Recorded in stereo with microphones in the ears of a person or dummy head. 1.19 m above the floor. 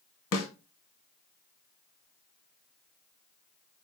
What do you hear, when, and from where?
0.3 s a snare drum: 70° left (ahead or behind), 2.5 m